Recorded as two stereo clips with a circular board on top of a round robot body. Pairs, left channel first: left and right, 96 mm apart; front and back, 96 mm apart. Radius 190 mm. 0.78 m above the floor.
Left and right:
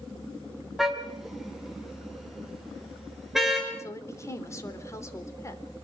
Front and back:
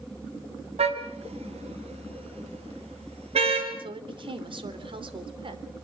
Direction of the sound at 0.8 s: Straight behind.